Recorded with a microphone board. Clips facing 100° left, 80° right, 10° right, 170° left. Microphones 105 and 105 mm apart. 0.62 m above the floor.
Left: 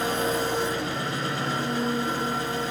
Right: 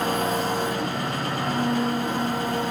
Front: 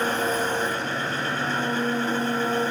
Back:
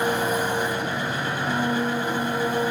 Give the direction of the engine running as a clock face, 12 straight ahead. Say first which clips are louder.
Right 2 dB, back 1 dB; 4 o'clock.